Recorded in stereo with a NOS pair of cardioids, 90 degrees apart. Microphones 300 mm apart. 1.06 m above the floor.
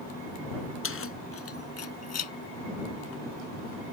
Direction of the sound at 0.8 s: 45° left.